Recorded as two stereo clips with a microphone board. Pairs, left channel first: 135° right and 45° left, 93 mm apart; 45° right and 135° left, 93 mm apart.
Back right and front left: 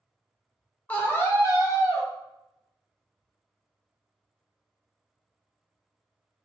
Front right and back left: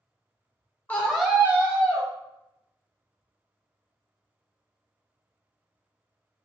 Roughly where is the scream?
Right.